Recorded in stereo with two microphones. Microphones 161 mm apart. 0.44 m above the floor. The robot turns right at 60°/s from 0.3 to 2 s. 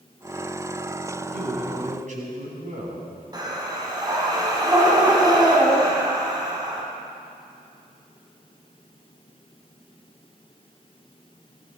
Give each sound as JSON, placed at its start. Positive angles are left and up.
{"t": 1.3, "sound": "a man speaking", "azimuth_deg": -95, "distance_m": 3.5}
{"t": 3.3, "sound": "breathing", "side_deg": -25, "distance_m": 2.0}